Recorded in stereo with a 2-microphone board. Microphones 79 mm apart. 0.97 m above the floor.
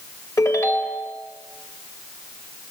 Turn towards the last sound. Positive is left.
turn(degrees=40)  # may be behind; listen again after turning